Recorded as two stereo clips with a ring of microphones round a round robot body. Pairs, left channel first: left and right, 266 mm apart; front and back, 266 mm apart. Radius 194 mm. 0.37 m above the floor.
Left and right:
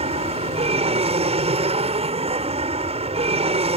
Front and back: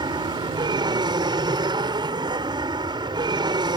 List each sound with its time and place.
0.0 s an aircraft: 125° right